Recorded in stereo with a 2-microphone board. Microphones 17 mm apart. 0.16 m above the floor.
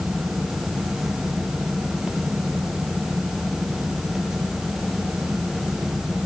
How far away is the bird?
No bird in this recording.